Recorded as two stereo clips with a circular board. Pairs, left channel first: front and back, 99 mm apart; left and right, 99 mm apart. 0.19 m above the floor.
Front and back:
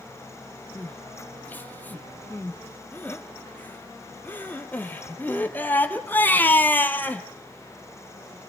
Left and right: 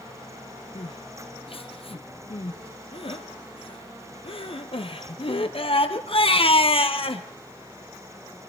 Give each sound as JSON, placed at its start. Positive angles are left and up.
{"t": 0.8, "sound": "crying", "azimuth_deg": 70, "distance_m": 1.9}